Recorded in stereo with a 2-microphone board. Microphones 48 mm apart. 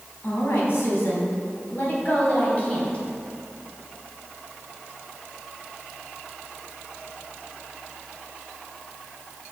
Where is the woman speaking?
60° left (ahead or behind), 3 m; by 3.0 s 25° left (ahead or behind), 2 m.